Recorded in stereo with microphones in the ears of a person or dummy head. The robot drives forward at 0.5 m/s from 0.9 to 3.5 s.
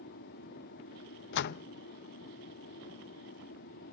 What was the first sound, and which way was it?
An aircraft, 55° left (ahead or behind).